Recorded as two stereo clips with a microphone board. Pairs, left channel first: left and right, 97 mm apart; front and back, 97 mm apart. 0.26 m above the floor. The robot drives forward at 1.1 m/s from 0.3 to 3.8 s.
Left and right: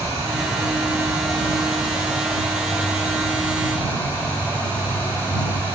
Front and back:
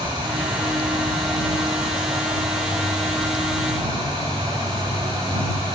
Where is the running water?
145° right, 10 m; by 5.8 s 155° right, 13 m.